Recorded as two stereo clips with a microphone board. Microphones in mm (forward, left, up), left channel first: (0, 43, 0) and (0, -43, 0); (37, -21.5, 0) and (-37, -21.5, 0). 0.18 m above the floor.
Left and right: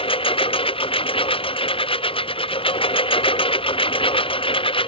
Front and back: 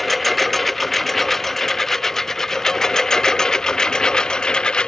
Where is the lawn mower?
90° left; by 4.9 s 80° left.